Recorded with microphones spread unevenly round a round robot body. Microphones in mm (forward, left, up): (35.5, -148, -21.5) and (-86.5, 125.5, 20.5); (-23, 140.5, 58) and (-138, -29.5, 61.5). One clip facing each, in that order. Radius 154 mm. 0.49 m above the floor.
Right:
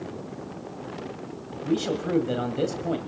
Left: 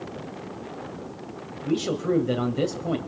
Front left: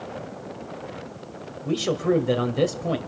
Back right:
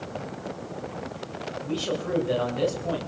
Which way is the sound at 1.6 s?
25° left.